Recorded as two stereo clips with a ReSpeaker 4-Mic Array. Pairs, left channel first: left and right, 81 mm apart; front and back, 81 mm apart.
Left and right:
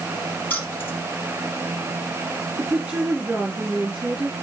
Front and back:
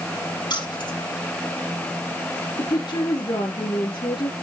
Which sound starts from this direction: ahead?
A woman speaking, at 2.6 s.